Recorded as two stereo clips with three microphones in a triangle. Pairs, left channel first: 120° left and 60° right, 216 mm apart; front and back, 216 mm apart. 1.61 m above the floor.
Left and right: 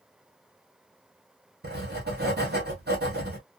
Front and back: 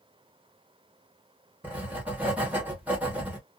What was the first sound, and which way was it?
Writing, 100° right.